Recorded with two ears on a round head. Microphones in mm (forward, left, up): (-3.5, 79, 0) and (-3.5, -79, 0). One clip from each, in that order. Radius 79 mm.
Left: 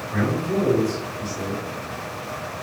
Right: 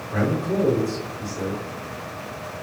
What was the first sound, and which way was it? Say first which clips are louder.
A man speaking: right 1 dB; 35° left (ahead or behind).